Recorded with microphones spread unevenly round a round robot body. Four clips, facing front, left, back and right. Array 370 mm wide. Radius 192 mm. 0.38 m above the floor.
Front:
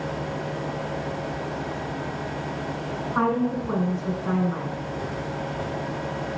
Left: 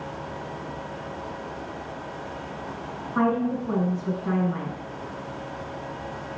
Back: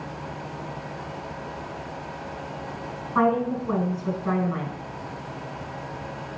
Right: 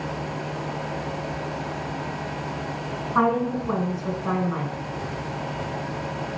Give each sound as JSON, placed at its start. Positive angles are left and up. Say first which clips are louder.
{"t": 3.1, "sound": "a woman speaking", "louder": "right 2 dB, back 2 dB", "azimuth_deg": -85, "distance_m": 2.0}